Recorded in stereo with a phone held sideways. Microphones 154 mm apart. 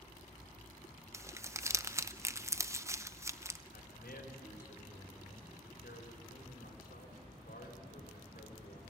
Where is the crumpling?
20° right (ahead or behind), 0.6 m.